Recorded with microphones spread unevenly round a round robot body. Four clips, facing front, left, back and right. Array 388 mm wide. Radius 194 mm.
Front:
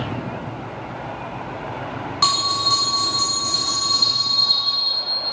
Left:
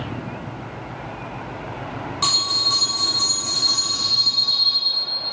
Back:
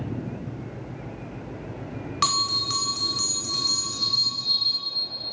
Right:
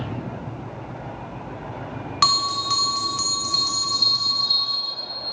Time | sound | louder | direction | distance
2.2 | a bell | right 9 dB, front 5 dB | 110° right | 1.2 m